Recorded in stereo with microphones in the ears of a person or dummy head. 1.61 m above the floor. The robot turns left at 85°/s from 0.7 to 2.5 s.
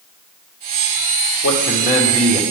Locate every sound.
1.4 s a man speaking: 80° left, 1.7 m; by 2.4 s straight ahead, 1.7 m